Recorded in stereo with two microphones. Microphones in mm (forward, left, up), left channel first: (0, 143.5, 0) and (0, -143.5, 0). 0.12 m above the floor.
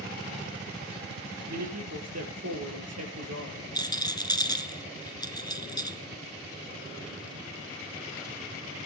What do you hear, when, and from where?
1.5 s a man speaking: 60° right (ahead or behind), 3 m
3.8 s a rattle: 15° left (ahead or behind), 1.1 m